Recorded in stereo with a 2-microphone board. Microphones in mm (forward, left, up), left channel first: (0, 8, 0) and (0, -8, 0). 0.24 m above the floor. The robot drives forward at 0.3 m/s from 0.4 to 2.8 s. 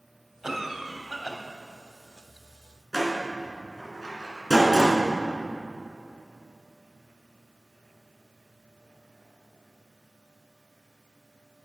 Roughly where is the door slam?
Centre.